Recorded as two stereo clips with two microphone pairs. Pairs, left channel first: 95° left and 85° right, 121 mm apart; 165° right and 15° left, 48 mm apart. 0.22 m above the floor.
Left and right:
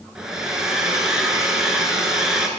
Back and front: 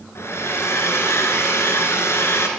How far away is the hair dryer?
About 1.9 m.